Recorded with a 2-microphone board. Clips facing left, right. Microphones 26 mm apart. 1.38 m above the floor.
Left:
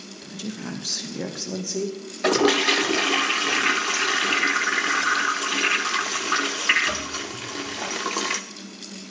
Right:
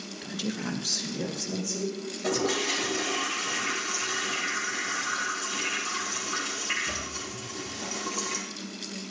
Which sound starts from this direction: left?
A toilet flushing, at 2.2 s.